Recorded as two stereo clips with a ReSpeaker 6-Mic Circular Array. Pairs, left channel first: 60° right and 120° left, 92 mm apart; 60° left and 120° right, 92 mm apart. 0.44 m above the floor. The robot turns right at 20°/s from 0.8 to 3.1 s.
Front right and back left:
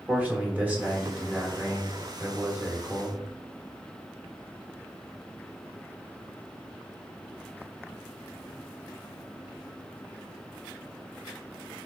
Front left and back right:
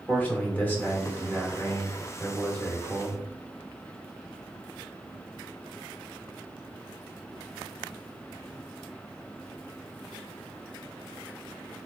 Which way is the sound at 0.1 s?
85° left.